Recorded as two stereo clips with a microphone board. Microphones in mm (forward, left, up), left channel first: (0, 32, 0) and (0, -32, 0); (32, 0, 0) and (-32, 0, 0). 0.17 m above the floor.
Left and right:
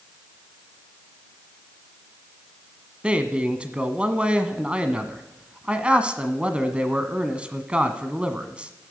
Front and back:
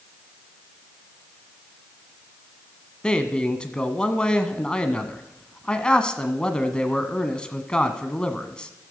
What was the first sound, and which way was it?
A man speaking, 50° right.